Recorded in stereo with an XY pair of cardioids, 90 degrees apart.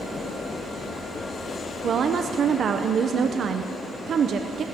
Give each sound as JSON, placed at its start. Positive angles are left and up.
{"t": 1.8, "sound": "a woman speaking", "azimuth_deg": -60, "distance_m": 0.8}